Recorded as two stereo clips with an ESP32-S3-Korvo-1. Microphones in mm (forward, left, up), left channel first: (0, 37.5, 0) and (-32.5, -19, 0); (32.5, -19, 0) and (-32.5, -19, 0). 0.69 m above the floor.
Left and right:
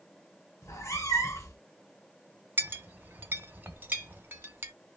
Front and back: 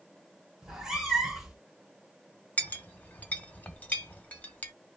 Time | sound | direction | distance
0.6 | a cat meowing | 100° left | 1.1 m
2.6 | a clink | 60° right | 1.1 m